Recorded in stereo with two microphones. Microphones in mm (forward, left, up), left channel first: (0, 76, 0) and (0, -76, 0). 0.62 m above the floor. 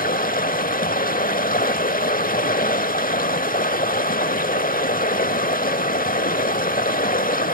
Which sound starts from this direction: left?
Running water, at 0.0 s.